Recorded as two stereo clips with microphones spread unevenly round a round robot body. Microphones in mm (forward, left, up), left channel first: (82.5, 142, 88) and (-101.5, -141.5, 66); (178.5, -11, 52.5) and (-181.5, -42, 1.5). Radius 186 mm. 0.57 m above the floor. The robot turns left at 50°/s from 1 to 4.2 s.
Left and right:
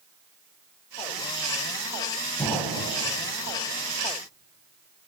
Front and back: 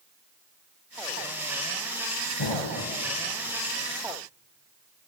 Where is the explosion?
30° right, 0.9 m; by 3.0 s 60° right, 0.9 m.